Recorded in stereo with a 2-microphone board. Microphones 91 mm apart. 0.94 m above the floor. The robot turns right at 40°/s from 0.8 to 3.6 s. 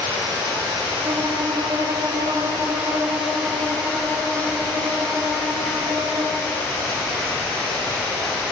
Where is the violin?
135° right, 1.7 m; by 6.4 s 35° right, 1.7 m.